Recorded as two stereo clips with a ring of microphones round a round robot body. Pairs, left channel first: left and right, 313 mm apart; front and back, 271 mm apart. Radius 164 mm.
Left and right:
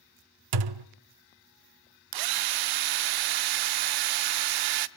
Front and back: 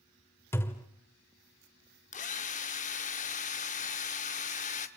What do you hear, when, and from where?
0.5 s a thud: 85° right, 0.6 m
2.1 s a drill: 70° right, 0.7 m